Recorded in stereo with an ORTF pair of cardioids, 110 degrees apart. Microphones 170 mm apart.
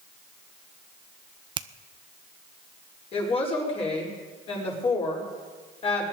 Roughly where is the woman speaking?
Ahead left.